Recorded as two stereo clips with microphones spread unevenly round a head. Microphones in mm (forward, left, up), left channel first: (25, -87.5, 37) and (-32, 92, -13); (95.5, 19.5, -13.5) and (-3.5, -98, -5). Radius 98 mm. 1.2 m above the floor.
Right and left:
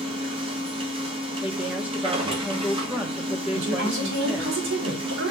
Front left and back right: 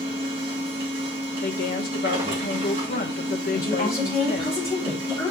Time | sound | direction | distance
0.0 | a machine running | 165° left | 1.8 m
1.4 | a woman speaking | 25° left | 1.6 m
3.5 | a woman speaking | 125° left | 3.5 m